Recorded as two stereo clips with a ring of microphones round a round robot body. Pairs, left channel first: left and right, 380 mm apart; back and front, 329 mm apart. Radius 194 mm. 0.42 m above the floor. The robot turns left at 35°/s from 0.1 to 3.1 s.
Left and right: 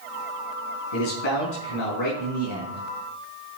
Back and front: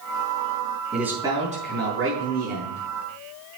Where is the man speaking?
90° left, 4.5 m; by 2.8 s 20° left, 4.5 m.